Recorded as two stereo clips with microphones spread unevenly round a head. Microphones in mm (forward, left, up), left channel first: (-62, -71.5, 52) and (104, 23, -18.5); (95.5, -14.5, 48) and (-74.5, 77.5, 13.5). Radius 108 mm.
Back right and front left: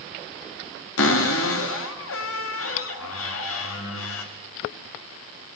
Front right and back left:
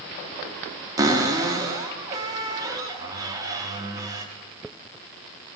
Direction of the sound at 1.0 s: 135° right.